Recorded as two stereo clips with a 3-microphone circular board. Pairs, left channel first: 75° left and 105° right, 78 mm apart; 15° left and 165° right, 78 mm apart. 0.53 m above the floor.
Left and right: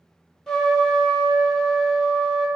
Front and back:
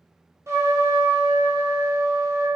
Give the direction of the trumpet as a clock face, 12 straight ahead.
7 o'clock.